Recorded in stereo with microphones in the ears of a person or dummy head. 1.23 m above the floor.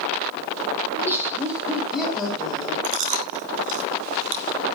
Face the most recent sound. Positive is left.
turn(degrees=-30)  # may be behind; listen again after turning